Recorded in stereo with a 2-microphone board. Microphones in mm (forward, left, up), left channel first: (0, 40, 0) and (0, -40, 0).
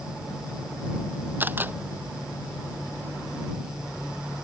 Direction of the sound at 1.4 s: 25° right (ahead or behind).